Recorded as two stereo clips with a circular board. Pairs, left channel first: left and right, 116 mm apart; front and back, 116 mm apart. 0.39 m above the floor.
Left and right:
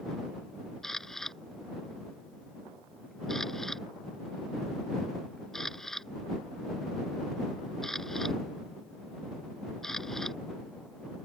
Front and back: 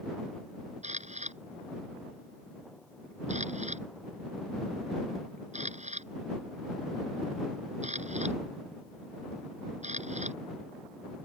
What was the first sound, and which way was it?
A camera shutter, 175° left.